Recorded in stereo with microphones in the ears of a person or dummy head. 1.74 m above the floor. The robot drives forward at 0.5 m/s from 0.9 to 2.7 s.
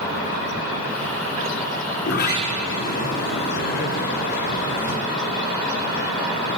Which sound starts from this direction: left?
A sliding door, at 2.0 s.